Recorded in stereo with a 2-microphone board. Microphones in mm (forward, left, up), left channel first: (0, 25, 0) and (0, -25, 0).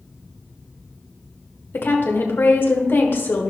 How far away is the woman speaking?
About 1.3 m.